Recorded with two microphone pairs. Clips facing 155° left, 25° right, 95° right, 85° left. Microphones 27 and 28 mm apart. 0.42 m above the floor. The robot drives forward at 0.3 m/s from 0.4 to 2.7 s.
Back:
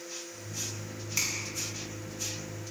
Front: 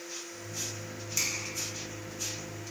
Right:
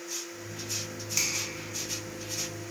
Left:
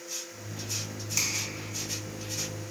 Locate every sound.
1.2 s a finger snap: 165° right, 0.8 m